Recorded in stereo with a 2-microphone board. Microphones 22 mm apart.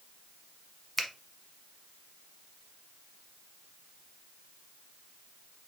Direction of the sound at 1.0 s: 15° left (ahead or behind).